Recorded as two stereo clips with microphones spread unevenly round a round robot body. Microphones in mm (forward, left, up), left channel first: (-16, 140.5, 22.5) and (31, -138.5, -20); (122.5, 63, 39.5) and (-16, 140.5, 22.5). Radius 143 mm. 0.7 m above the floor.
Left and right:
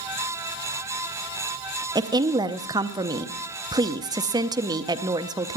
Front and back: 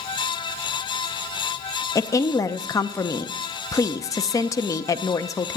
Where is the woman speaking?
80° right, 0.5 m.